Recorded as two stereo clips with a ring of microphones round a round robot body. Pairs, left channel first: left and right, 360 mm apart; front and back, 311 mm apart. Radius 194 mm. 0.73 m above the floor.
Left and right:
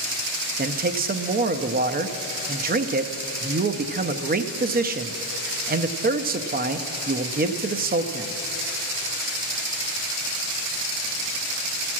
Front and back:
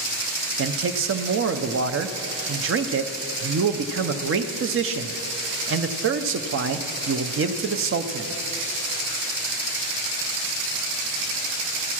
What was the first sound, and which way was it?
A man speaking, 150° right.